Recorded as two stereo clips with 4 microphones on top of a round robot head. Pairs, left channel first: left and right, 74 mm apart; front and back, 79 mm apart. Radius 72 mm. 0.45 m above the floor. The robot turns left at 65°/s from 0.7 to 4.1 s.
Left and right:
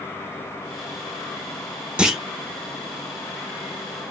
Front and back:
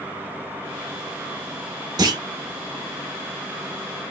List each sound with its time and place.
2.0 s a clunk: 165° right, 0.8 m; by 2.2 s straight behind, 0.8 m